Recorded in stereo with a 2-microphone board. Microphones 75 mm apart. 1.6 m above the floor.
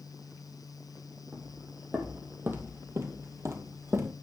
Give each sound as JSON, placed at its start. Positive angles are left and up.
{"t": 1.3, "sound": "footsteps", "side_deg": -15, "distance_m": 3.5}